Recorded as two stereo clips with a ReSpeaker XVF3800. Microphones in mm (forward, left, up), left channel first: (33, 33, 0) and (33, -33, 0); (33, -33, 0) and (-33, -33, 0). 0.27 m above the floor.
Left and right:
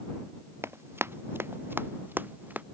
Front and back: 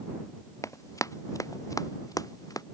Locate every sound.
0.6 s running footsteps: 40° right; by 2.6 s 25° right